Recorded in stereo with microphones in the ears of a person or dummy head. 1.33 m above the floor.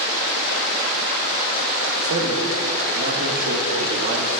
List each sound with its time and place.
2.0 s a man speaking: 65° right (ahead or behind), 1.9 m